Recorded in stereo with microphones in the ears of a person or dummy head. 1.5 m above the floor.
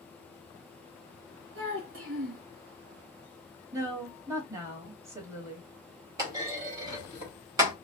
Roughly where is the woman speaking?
Centre.